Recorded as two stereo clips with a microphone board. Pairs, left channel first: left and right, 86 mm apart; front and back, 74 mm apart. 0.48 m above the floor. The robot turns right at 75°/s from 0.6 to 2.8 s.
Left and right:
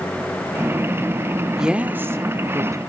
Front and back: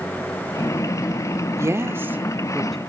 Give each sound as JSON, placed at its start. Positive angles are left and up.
{"t": 1.6, "sound": "a woman speaking", "azimuth_deg": -170, "distance_m": 1.2}